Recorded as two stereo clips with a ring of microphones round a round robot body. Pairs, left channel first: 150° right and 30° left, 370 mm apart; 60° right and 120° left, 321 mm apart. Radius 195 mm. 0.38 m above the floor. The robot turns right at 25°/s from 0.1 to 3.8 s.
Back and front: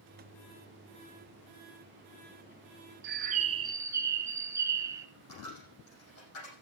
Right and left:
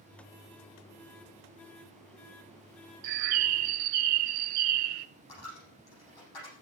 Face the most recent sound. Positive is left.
turn(degrees=-95)